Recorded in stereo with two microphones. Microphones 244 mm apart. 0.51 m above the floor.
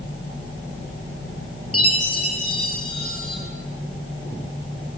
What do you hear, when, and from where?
1.7 s a chime: 70° left (ahead or behind), 5 m